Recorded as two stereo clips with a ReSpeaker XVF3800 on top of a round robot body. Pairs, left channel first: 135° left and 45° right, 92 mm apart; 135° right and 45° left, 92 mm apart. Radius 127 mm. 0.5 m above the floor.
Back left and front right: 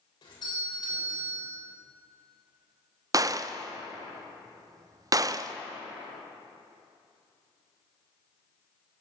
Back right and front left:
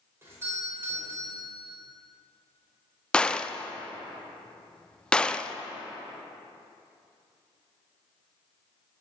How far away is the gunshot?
About 0.5 m.